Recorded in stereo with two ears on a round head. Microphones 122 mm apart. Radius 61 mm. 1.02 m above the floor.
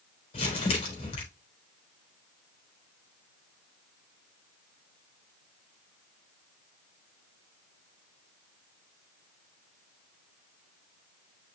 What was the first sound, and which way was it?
Crumpling, 45° left (ahead or behind).